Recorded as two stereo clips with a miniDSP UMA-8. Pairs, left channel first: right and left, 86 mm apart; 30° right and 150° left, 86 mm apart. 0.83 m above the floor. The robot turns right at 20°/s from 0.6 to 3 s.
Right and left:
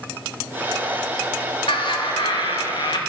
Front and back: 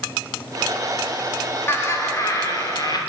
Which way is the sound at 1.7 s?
90° right.